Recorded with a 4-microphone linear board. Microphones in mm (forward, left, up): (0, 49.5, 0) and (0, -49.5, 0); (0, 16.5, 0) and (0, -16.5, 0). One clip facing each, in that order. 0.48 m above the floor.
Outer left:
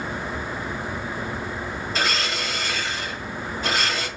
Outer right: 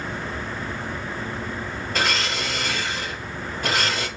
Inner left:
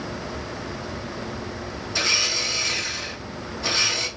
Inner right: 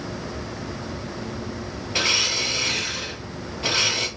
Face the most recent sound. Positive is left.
turn(degrees=-55)  # may be behind; listen again after turning